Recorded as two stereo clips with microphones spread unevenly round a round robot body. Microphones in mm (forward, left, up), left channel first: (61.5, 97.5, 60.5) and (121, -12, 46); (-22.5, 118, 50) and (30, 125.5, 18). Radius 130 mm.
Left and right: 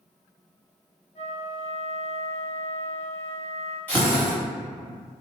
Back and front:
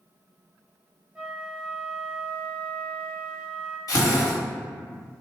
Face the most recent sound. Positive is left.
turn(degrees=-170)